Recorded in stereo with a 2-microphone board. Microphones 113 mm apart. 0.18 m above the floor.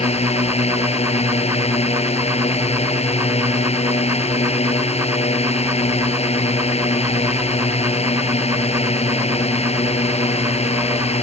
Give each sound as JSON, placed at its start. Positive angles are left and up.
{"t": 0.0, "sound": "a drone", "side_deg": 70}